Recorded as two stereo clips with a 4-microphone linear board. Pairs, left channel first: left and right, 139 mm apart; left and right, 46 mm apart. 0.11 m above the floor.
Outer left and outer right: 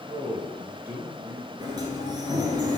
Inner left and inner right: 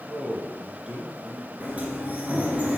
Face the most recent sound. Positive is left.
turn(degrees=-30)  # may be behind; listen again after turning